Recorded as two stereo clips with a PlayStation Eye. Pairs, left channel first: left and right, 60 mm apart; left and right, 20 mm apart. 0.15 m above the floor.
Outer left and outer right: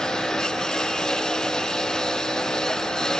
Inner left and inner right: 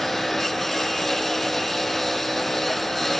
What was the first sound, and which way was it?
A lawn mower, 10° left (ahead or behind).